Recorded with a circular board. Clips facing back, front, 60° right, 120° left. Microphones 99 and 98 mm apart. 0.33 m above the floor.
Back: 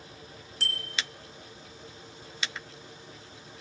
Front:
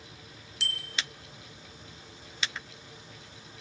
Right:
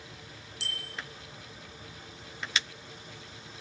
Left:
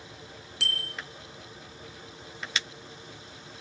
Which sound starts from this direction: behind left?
A bicycle bell, at 0.6 s.